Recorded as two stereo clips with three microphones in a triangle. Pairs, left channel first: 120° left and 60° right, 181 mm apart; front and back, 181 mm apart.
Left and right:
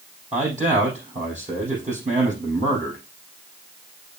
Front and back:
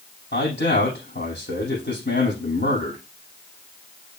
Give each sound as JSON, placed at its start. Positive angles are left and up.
{"t": 0.3, "sound": "a man speaking", "azimuth_deg": -10, "distance_m": 5.5}